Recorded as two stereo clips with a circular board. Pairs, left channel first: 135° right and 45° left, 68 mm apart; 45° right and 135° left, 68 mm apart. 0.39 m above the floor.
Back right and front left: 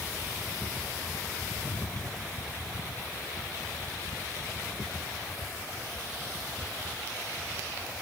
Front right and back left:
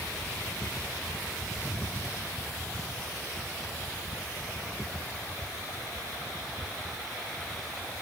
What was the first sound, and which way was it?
Only background noise.